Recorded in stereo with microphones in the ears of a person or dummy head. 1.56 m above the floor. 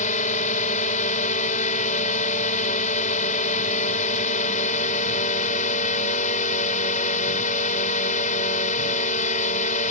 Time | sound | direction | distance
0.0 | a drone | 40° left (ahead or behind) | ?